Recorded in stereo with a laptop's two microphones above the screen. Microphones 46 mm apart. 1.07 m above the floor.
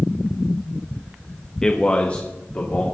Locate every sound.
1.6 s a man speaking: 15° left (ahead or behind), 1.0 m; by 2.8 s 40° left (ahead or behind), 2.5 m